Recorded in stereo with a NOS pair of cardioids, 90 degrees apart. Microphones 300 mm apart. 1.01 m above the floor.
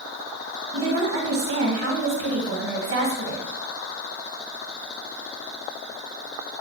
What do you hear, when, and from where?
0.7 s a woman speaking: 45° right, 1.1 m